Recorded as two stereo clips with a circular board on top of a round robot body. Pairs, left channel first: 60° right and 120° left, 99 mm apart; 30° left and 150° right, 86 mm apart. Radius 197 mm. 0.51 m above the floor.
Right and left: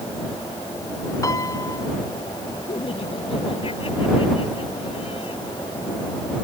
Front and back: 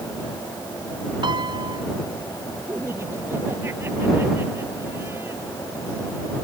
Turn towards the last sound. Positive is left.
turn(degrees=-85)